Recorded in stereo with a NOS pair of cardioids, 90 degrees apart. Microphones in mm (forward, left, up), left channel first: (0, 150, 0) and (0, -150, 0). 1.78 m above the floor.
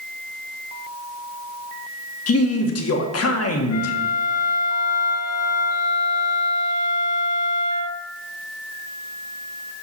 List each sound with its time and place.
2.3 s a man speaking: 55° left, 1.7 m
3.7 s a flute: 60° left, 0.9 m